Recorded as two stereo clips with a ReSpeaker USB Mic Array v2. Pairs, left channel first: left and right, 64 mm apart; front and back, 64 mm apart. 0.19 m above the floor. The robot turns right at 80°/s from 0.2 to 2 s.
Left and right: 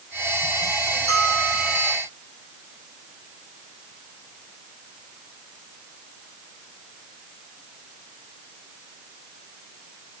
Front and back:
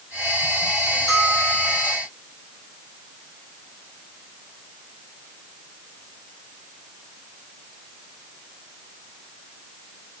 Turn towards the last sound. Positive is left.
turn(degrees=165)